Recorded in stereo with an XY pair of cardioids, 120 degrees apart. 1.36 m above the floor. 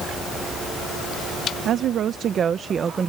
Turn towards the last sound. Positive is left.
turn(degrees=-35)